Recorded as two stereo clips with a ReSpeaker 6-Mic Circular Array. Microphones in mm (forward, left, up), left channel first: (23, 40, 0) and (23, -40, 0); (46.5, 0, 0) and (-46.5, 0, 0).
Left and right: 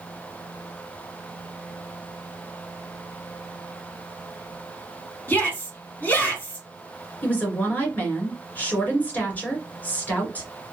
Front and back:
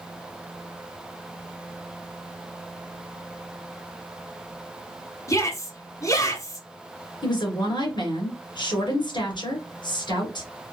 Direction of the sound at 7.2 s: 25° left.